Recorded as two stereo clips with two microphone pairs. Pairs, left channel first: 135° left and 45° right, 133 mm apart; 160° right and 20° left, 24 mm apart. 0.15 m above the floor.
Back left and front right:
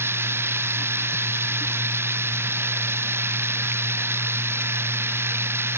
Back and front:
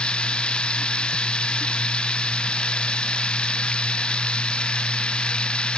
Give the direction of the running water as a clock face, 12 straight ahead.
4 o'clock.